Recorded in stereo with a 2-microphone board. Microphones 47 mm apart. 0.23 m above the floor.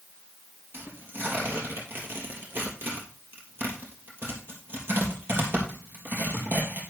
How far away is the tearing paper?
About 3 m.